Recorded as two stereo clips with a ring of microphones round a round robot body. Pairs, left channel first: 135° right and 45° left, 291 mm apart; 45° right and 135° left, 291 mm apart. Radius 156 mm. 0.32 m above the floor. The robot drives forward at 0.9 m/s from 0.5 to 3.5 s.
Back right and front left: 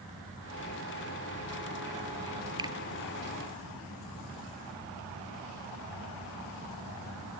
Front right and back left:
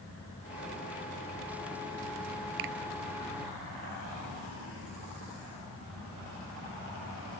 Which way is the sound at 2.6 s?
120° left.